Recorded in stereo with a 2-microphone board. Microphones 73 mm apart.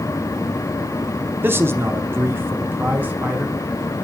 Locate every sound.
1.4 s a man speaking: 30° right (ahead or behind), 0.7 m; by 3.6 s 20° right (ahead or behind), 1.6 m